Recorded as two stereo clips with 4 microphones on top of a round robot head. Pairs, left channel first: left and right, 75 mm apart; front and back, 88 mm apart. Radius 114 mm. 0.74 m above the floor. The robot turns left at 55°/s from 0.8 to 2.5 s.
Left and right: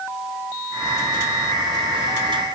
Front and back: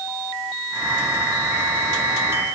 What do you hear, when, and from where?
Only background noise.